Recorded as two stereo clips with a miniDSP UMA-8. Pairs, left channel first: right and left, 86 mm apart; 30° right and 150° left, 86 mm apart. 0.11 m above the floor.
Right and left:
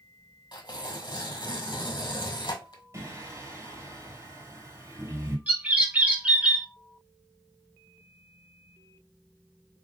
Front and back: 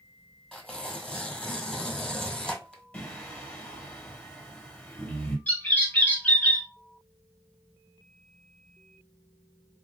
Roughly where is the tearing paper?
Behind right.